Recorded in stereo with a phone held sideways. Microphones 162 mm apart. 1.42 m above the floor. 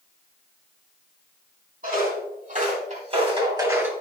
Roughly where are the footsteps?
Right.